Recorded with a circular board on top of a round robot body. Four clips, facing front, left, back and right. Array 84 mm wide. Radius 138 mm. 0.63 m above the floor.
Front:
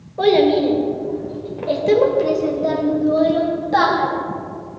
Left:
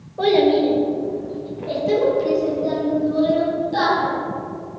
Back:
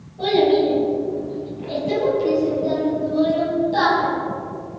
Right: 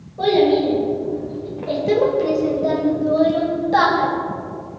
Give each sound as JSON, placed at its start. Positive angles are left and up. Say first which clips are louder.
{"t": 0.2, "sound": "a child speaking", "louder": "even, front 2 dB", "azimuth_deg": 20, "distance_m": 3.0}